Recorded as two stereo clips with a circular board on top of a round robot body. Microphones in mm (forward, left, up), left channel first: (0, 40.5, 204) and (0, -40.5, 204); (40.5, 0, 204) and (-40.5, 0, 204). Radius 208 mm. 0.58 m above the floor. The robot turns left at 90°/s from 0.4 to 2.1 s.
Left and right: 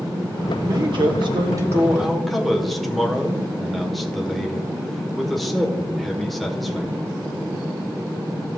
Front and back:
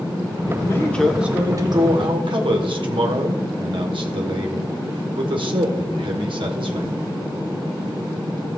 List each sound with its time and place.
0.6 s a man speaking: 45° right, 2 m; by 6.9 s straight behind, 2 m